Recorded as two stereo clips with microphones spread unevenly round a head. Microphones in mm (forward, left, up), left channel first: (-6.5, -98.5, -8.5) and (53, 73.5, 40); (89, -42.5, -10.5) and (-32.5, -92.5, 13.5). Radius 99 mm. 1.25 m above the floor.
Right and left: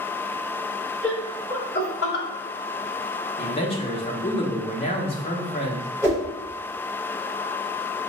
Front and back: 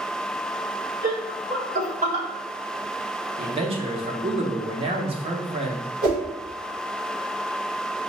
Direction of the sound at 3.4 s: 125° right.